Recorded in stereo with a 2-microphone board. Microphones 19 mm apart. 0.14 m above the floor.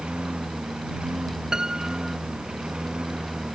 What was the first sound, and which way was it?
A lawn mower, 60° right (ahead or behind).